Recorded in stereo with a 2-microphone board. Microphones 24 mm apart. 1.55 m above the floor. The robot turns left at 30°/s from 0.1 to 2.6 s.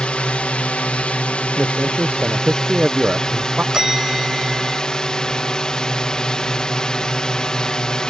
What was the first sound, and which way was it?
A drone, 115° left.